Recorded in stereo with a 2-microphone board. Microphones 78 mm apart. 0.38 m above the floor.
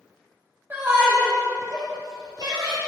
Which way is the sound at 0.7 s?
25° right (ahead or behind).